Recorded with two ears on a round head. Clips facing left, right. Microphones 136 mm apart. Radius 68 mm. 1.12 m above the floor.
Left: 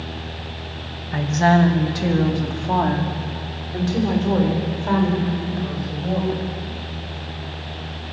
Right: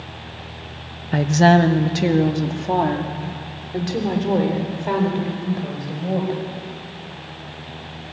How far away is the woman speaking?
About 0.8 m.